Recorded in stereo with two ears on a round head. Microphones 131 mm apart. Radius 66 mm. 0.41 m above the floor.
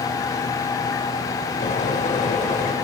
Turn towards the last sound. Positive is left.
turn(degrees=45)  # may be behind; listen again after turning